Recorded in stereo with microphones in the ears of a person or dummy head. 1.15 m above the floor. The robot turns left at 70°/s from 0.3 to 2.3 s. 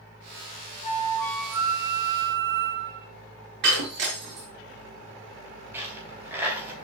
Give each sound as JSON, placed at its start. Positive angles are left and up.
{"t": 0.8, "sound": "a flute", "azimuth_deg": 40, "distance_m": 2.0}
{"t": 3.6, "sound": "breaking glass", "side_deg": -65, "distance_m": 5.0}
{"t": 5.7, "sound": "a dropped coin", "side_deg": -15, "distance_m": 4.5}